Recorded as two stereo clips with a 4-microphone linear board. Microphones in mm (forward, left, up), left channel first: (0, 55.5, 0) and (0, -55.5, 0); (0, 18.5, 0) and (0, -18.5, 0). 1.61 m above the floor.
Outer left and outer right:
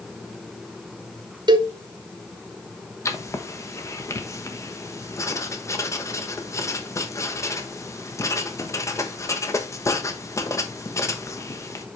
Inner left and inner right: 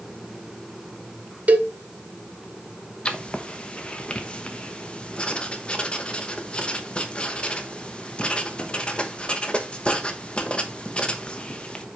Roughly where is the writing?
Left.